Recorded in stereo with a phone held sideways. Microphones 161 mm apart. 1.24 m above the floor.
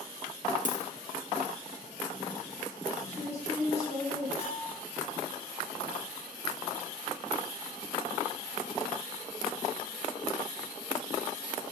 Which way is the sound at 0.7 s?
55° right (ahead or behind).